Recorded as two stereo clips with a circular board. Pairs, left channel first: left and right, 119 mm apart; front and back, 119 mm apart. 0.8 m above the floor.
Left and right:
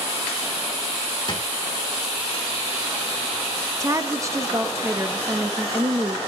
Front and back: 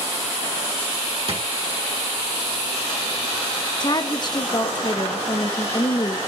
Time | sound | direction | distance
1.3 | a drawer | 140° left | 1.3 m
3.8 | a woman speaking | 35° right | 0.9 m